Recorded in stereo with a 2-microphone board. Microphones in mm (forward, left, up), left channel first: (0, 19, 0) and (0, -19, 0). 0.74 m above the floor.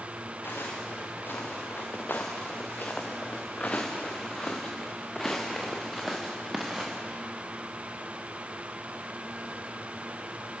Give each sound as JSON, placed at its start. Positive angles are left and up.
{"t": 0.4, "sound": "footsteps", "side_deg": 70, "distance_m": 5.5}